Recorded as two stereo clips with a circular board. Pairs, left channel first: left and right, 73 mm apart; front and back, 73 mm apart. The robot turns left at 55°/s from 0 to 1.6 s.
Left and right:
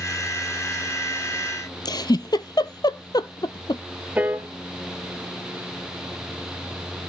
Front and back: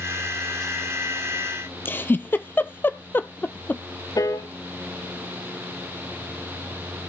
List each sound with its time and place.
1.9 s a giggle: 65° left, 0.6 m
4.2 s a piano: 25° right, 0.9 m